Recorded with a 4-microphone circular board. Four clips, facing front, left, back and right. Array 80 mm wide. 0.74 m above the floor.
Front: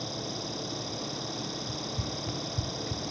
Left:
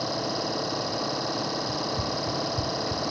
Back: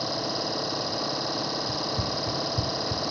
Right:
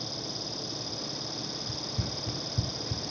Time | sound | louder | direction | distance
0.0 | an engine running | left 11 dB, back 7 dB | 125° left | ?
1.7 | running footsteps | left 9 dB, back 7 dB | 140° right | ?